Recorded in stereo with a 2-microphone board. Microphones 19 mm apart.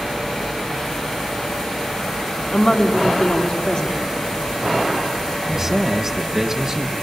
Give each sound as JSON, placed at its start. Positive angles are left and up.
{"t": 2.5, "sound": "a woman speaking", "side_deg": 45, "distance_m": 2.5}
{"t": 5.5, "sound": "a man speaking", "side_deg": -25, "distance_m": 1.4}